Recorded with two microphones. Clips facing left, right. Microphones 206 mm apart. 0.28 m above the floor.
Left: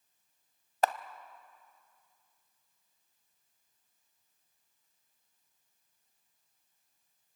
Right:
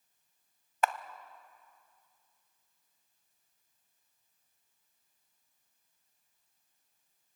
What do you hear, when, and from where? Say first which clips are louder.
0.8 s a camera shutter: left 2 dB; 35° left (ahead or behind), 0.6 m